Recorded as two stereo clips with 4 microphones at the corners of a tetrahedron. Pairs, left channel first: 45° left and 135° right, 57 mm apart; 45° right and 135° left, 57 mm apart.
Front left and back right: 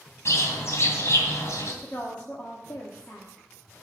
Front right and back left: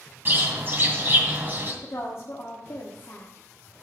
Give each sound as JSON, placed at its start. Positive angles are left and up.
{"t": 0.2, "sound": "a bird", "azimuth_deg": 85, "distance_m": 2.5}
{"t": 1.8, "sound": "a woman speaking", "azimuth_deg": -15, "distance_m": 1.5}